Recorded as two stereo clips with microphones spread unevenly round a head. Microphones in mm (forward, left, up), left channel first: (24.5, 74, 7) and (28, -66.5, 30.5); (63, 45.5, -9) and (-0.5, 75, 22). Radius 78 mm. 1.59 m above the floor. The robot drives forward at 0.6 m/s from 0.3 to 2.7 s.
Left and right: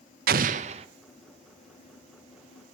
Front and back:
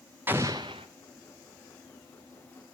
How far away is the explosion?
About 0.5 m.